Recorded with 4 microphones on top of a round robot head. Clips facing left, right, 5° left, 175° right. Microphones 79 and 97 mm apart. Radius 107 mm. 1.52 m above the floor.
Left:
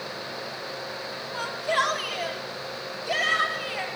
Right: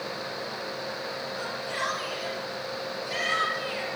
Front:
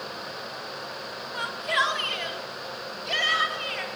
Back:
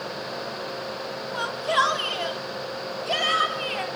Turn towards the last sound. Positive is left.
turn(degrees=140)